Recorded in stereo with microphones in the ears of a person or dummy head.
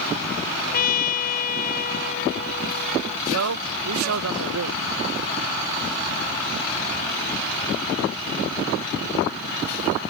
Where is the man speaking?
80° right.